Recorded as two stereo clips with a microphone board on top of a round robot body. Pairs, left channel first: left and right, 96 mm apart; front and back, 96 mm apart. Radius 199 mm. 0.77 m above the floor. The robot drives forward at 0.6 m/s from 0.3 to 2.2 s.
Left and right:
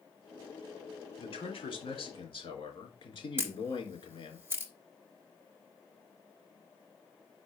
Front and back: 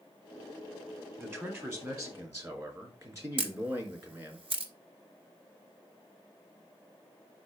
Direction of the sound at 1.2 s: 110° left.